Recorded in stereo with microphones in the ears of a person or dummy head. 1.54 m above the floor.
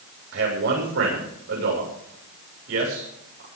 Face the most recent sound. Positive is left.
turn(degrees=-70)  # may be behind; listen again after turning